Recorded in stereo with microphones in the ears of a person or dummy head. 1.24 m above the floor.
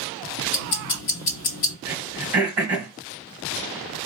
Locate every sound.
0.5 s ticking: 45° left (ahead or behind), 1.0 m
1.9 s throat clearing: 10° right (ahead or behind), 1.3 m